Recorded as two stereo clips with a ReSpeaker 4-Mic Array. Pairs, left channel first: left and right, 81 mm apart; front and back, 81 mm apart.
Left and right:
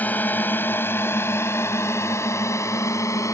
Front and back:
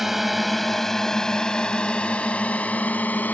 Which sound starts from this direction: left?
A drone, at 0.0 s.